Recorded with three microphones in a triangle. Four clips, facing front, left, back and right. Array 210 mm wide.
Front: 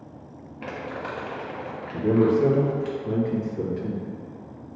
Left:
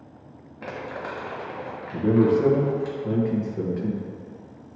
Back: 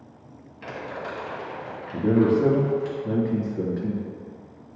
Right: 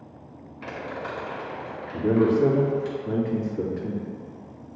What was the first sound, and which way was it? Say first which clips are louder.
Crumpling: even, front 1 dB; 45° left.